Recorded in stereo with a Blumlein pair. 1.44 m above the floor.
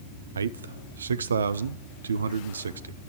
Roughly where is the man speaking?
Right.